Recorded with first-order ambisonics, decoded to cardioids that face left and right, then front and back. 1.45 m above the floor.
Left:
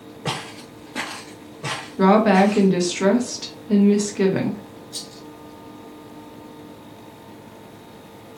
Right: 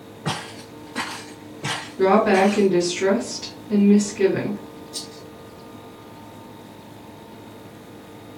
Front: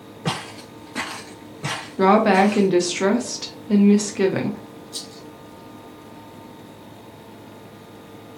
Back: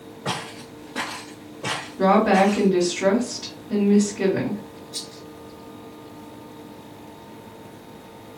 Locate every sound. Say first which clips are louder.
0.2 s footsteps: left 1 dB, front 1 dB; 40° left, 1.9 m; by 2.7 s 75° right, 1.6 m
2.0 s a woman speaking: left 1 dB, front 2 dB; 25° left, 1.0 m
4.9 s a rattle: even, even; 50° left, 2 m